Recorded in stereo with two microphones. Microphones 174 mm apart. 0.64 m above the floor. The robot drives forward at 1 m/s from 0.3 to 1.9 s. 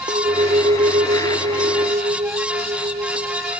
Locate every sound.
0.1 s a clink: 45° right (ahead or behind)